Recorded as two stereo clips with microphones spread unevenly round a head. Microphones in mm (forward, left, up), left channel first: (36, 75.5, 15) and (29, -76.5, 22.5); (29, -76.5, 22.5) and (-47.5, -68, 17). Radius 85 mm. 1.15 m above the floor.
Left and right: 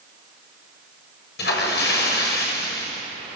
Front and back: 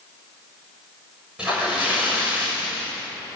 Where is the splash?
90° left, 6.5 m.